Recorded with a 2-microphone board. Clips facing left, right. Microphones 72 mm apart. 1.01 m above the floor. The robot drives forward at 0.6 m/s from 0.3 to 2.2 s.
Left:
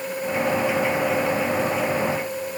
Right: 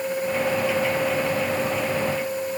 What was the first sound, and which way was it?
Only background noise.